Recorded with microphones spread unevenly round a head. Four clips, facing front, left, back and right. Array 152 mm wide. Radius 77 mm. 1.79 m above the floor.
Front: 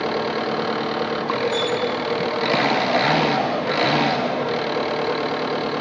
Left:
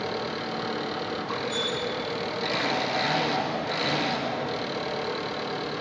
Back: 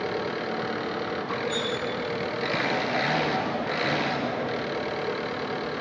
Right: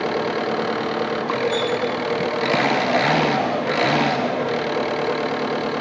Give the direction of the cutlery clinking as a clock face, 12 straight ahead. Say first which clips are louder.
Right 9 dB, front 7 dB; 6 o'clock.